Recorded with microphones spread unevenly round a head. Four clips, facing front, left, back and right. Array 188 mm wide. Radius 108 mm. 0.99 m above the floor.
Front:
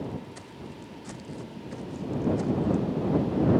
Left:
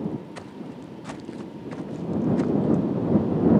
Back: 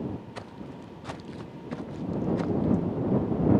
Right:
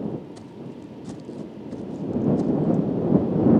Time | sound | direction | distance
0.3 | footsteps | 130° left | ?